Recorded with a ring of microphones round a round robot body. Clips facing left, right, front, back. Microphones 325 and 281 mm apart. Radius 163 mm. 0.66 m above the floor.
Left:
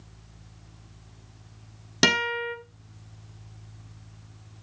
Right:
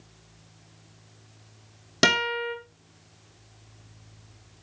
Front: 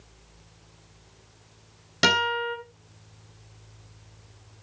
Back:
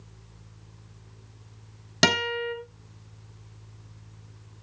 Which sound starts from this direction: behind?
A guitar, at 2.0 s.